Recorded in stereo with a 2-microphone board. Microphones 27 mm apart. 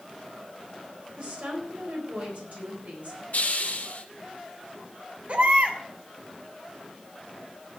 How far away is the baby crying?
About 2 m.